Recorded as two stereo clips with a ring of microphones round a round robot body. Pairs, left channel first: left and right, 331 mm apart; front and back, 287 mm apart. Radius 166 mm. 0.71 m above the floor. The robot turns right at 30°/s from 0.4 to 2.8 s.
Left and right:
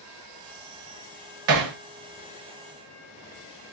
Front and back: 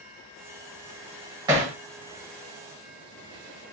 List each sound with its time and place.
1.5 s hammering: 105° right, 0.7 m; by 1.8 s 95° right, 0.7 m